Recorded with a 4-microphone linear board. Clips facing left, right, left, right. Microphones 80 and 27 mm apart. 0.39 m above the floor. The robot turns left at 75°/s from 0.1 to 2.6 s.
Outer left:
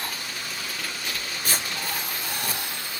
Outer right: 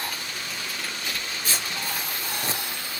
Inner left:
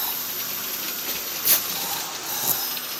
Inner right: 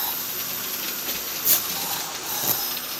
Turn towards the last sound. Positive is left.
turn(degrees=-35)  # may be behind; listen again after turning